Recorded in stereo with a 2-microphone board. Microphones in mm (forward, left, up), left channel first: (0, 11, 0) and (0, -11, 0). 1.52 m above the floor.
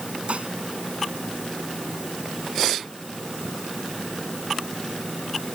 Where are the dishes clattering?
75° right (ahead or behind).